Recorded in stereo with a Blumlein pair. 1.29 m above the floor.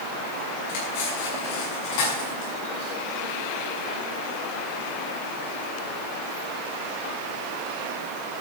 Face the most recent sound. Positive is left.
turn(degrees=50)